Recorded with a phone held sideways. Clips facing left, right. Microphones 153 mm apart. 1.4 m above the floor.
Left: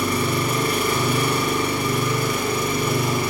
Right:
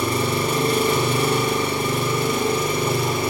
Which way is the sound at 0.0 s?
30° right (ahead or behind).